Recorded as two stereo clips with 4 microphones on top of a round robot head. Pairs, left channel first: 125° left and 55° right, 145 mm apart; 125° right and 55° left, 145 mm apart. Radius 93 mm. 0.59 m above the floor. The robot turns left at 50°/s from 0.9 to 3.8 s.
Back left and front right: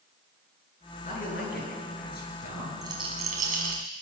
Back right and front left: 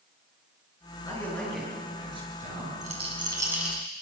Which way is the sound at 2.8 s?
15° left.